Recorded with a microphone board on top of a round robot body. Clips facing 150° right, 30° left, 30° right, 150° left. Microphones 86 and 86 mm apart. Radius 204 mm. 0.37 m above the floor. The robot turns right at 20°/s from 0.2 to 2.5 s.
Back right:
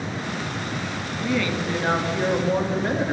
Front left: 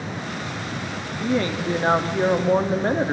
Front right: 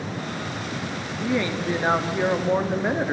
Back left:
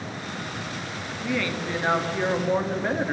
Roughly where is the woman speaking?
Ahead.